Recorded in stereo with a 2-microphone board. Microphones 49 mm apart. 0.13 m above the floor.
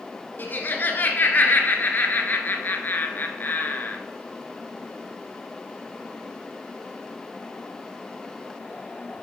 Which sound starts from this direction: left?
Laughter, at 0.4 s.